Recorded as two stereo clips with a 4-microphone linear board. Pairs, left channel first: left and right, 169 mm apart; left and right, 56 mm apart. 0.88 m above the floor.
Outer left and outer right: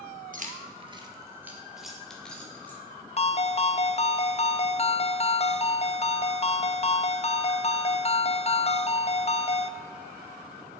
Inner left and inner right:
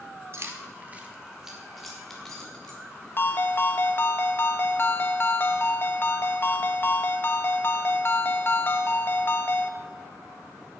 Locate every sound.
0.3 s keys jangling: 55° right (ahead or behind), 1.2 m; by 2.8 s 10° left (ahead or behind), 2.5 m
3.2 s a ringtone: 40° left (ahead or behind), 0.6 m